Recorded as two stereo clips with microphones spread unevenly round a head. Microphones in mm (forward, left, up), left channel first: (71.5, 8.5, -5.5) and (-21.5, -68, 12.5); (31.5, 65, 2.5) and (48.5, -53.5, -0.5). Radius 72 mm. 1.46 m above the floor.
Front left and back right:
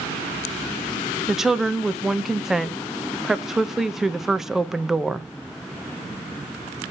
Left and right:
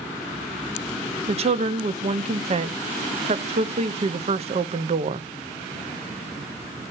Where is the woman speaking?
50° right, 0.6 m.